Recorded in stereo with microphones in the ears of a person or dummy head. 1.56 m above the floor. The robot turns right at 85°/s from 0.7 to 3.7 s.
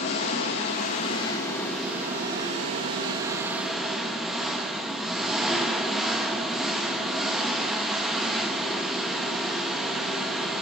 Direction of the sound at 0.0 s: 30° left (ahead or behind).